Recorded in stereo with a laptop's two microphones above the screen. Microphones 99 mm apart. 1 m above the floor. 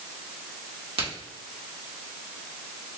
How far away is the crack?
About 2.0 m.